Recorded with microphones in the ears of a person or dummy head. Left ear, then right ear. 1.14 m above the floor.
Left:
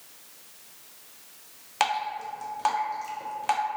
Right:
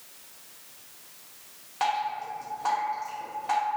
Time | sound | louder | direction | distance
1.8 | dripping | left 1 dB | 60° left (ahead or behind) | 0.5 m